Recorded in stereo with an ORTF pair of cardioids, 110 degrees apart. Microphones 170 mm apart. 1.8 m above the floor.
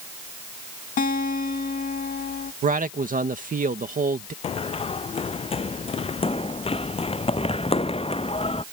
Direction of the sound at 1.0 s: 50° left.